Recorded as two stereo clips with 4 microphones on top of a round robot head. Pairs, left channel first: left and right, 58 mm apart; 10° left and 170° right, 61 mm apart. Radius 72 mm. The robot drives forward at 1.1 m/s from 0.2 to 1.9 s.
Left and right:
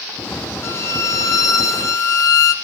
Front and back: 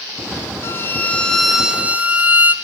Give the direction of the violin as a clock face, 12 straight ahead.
10 o'clock.